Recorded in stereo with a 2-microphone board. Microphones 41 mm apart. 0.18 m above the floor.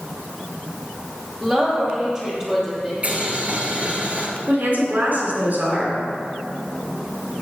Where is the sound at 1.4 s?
20° right (ahead or behind), 3.5 m; by 2.9 s 15° right (ahead or behind), 4.5 m.